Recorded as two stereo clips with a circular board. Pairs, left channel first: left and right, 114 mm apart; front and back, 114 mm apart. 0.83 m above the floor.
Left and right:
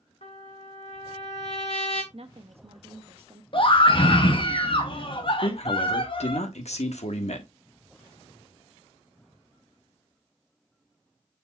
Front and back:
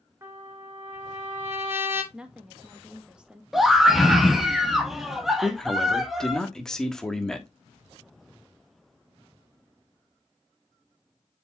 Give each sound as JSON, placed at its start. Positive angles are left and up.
{"t": 0.2, "sound": "a trumpet", "azimuth_deg": 110, "distance_m": 2.0}
{"t": 2.1, "sound": "a woman speaking", "azimuth_deg": -100, "distance_m": 1.2}
{"t": 3.5, "sound": "a scream", "azimuth_deg": 95, "distance_m": 1.4}
{"t": 5.4, "sound": "a man speaking", "azimuth_deg": 85, "distance_m": 1.3}